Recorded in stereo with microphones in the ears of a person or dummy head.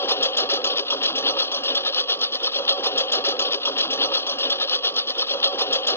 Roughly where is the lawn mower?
Left.